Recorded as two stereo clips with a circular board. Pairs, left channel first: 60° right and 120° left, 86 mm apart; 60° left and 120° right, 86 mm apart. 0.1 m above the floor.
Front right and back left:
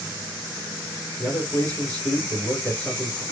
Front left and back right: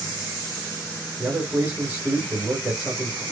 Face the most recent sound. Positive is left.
turn(degrees=-115)